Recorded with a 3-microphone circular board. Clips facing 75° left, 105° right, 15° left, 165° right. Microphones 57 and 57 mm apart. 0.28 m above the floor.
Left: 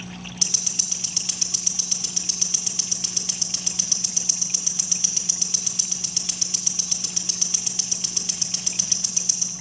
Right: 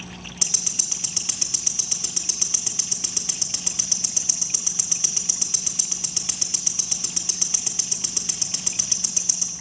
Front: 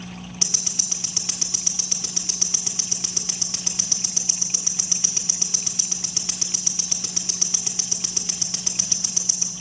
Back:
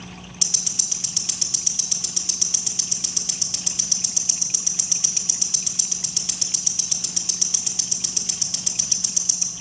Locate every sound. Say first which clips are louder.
0.4 s ticking: even, front 2 dB; 35° right, 1.8 m